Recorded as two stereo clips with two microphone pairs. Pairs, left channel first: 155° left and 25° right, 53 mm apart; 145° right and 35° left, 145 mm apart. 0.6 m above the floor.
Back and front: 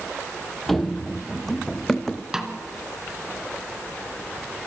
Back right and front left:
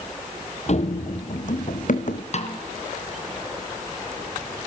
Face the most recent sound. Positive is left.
turn(degrees=-105)